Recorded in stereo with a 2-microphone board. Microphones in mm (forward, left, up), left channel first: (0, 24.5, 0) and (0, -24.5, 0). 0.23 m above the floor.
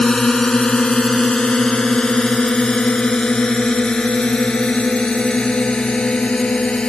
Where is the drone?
15° left (ahead or behind); by 6.9 s 20° left (ahead or behind).